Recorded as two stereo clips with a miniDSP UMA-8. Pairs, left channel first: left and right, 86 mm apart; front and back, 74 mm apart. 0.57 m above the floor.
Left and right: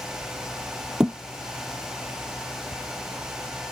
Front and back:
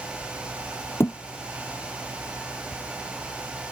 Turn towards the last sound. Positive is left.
turn(degrees=-15)